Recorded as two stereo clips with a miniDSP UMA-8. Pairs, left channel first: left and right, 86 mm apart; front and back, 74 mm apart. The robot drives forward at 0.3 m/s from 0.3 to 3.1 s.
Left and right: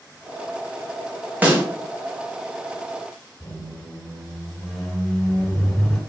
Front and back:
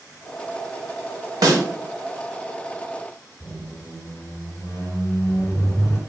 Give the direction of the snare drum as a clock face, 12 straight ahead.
5 o'clock.